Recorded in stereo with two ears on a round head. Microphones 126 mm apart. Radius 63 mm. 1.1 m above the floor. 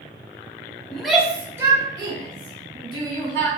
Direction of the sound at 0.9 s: 5° left (ahead or behind).